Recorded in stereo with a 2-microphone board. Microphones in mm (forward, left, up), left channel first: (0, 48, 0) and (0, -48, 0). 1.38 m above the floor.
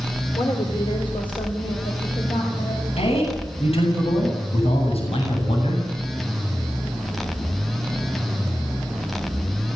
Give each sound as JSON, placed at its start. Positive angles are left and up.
{"t": 0.3, "sound": "a woman speaking", "side_deg": 65, "distance_m": 4.0}
{"t": 3.0, "sound": "a man speaking", "side_deg": 90, "distance_m": 8.0}